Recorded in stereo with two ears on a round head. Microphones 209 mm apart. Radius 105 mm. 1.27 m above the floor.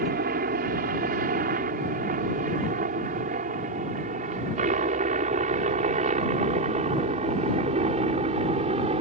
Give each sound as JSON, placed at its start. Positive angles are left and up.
{"t": 0.0, "sound": "a helicopter", "side_deg": -40}